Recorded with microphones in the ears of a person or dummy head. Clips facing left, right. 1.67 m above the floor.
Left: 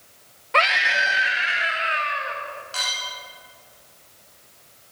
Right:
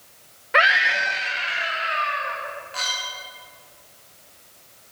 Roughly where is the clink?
Left.